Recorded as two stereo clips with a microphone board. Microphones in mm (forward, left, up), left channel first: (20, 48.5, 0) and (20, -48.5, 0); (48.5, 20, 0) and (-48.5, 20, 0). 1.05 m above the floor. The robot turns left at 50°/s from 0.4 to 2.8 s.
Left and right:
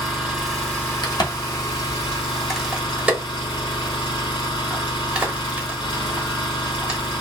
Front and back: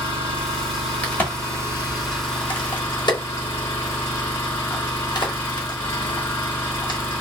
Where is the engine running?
175° right, 2 m; by 7.2 s 65° left, 2 m.